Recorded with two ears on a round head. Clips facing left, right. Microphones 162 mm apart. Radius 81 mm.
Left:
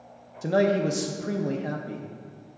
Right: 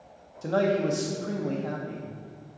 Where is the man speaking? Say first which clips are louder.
Left 2 dB; 15° left (ahead or behind), 0.5 m.